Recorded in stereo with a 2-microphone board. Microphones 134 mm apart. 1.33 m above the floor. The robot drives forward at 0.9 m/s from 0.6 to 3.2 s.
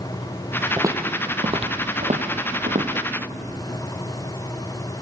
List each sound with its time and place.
0.8 s footsteps: 20° right (ahead or behind), 2.5 m; by 3.0 s 65° right (ahead or behind), 3.5 m